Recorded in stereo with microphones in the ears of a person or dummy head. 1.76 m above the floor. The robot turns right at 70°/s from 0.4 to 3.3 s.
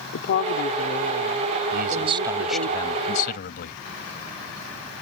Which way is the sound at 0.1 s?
110° left.